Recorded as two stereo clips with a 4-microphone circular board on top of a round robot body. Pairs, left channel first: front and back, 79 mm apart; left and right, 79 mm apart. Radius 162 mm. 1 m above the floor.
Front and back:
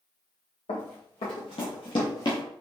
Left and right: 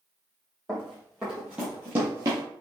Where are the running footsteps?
Straight ahead, 2 m; by 2.4 s 45° right, 1.2 m.